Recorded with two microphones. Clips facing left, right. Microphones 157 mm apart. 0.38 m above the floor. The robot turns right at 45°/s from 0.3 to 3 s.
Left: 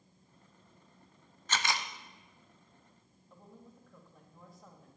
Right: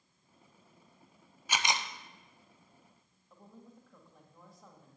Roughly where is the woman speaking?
Centre.